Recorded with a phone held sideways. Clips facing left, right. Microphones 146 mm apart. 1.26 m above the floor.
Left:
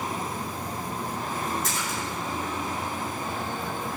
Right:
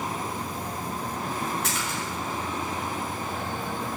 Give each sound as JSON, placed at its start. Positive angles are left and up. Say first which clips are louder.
{"t": 1.6, "sound": "a splash", "louder": "even", "side_deg": -85, "distance_m": 6.5}